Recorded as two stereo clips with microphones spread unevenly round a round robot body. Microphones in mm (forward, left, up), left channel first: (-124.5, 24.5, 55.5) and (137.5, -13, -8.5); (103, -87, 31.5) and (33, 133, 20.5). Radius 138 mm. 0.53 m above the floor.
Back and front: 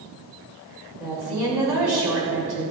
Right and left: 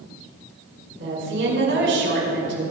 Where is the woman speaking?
75° left, 5.5 m.